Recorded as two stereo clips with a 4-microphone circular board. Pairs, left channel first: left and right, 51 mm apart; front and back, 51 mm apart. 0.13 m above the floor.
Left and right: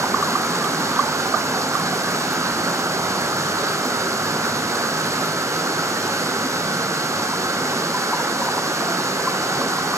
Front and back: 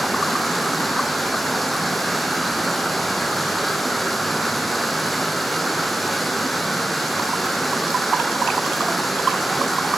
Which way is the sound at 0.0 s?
90° right.